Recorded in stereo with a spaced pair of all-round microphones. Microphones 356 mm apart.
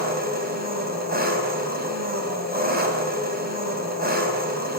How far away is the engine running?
About 4 m.